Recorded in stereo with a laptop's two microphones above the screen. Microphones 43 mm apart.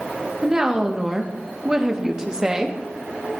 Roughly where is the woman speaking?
Centre.